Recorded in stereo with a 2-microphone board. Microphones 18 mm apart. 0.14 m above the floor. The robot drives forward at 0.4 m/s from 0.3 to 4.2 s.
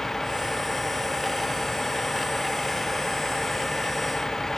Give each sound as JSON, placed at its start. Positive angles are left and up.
{"t": 0.0, "sound": "a vehicle", "side_deg": 20}